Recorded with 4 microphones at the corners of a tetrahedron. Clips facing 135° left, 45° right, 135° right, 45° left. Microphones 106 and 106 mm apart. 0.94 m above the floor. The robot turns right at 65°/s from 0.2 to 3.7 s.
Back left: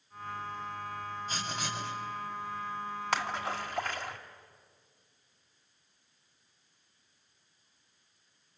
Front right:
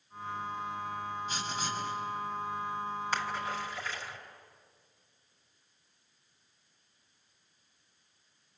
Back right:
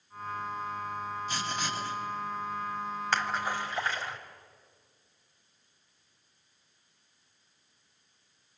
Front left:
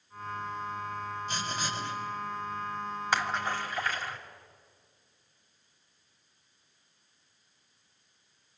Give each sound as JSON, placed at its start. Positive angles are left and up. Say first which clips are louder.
{"t": 1.3, "sound": "writing", "louder": "front right 1 dB, even", "azimuth_deg": 80, "distance_m": 4.0}
{"t": 3.1, "sound": "a splash", "louder": "back left 4 dB, front left 1 dB", "azimuth_deg": 125, "distance_m": 2.0}